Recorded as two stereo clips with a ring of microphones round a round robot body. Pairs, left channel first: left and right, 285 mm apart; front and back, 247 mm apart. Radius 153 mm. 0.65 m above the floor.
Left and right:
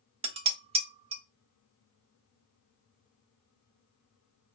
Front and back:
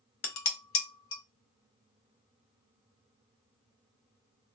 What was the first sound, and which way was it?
Dishes clattering, 25° right.